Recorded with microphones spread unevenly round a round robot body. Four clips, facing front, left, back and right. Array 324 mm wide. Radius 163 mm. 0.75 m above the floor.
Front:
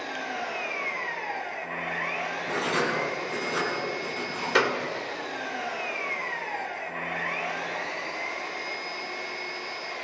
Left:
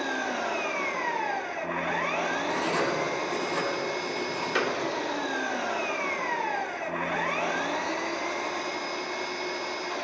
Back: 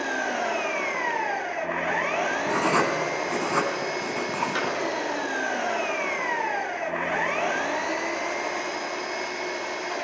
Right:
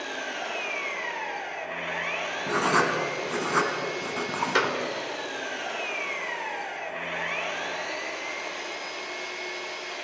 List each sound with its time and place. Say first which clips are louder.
0.0 s an engine running: left 4 dB, back 6 dB; 150° left, 0.8 m
2.5 s writing: right 7 dB, back 3 dB; 140° right, 2.5 m
4.5 s a clap: right 2 dB, front 4 dB; 30° right, 2.5 m